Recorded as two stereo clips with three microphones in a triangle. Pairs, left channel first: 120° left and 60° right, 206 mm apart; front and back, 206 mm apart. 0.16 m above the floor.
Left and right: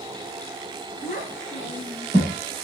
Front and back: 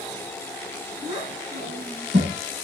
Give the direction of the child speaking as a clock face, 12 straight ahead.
8 o'clock.